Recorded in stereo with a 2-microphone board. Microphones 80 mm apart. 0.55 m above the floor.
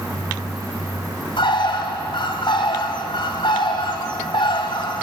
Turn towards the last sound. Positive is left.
turn(degrees=75)  # may be behind; listen again after turning